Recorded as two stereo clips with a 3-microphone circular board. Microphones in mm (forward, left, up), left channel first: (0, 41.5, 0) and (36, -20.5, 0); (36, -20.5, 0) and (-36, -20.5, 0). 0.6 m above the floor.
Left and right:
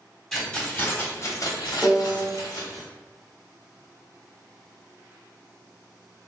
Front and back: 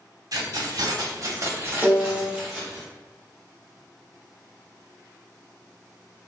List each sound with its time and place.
0.3 s keys jangling: 155° right, 1.0 m; by 2.8 s 90° left, 1.3 m
1.8 s a piano: 170° right, 1.4 m